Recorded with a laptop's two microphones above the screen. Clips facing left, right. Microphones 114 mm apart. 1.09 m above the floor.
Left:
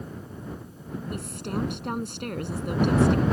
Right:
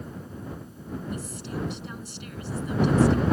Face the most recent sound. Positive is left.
turn(degrees=60)  # may be behind; listen again after turning